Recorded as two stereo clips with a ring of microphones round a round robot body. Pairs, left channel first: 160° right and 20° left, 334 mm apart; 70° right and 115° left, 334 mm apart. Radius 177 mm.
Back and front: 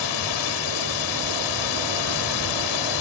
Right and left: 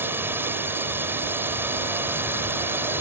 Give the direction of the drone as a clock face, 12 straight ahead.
5 o'clock.